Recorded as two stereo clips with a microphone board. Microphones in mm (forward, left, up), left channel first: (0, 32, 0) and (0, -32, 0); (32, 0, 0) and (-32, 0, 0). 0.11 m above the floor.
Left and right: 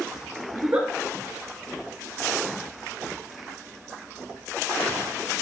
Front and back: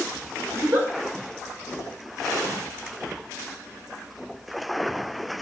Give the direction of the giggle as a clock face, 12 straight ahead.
5 o'clock.